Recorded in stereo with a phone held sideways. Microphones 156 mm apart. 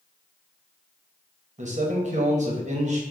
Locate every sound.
1.6 s a man speaking: 50° right (ahead or behind), 1.0 m